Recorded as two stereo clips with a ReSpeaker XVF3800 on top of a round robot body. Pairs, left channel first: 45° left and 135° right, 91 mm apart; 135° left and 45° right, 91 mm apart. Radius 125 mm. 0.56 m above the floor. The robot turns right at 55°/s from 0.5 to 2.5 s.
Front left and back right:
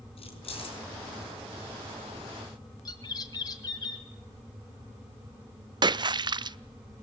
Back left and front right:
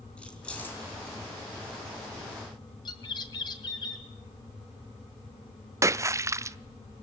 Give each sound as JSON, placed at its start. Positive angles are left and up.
{"t": 0.2, "sound": "keys jangling", "azimuth_deg": 55, "distance_m": 4.5}
{"t": 2.9, "sound": "a bird", "azimuth_deg": 95, "distance_m": 2.0}
{"t": 5.8, "sound": "a splash", "azimuth_deg": -100, "distance_m": 0.7}